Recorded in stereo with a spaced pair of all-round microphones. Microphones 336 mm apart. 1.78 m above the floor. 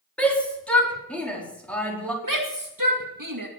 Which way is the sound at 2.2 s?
65° right (ahead or behind).